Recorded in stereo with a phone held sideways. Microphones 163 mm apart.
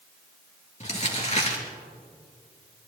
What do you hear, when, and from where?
0.8 s crumpling: 45° left (ahead or behind), 3 m